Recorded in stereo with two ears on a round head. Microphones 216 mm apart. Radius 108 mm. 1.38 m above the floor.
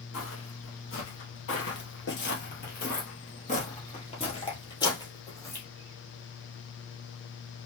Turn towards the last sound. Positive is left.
turn(degrees=10)  # may be behind; listen again after turning